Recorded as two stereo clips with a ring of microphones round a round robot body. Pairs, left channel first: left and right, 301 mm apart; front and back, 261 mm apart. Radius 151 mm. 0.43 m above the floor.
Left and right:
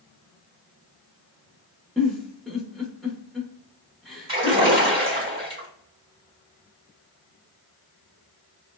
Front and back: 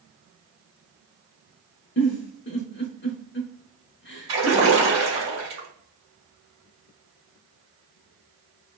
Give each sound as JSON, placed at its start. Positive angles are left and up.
{"t": 2.0, "sound": "a giggle", "azimuth_deg": 0, "distance_m": 0.7}
{"t": 4.3, "sound": "a splash", "azimuth_deg": -140, "distance_m": 1.2}